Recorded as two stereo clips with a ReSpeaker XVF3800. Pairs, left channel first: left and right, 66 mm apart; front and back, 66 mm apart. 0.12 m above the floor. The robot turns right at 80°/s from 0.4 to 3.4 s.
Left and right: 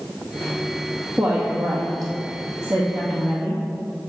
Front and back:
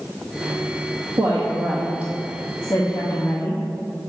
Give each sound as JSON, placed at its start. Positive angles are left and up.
{"t": 1.2, "sound": "a woman speaking", "azimuth_deg": -170, "distance_m": 2.5}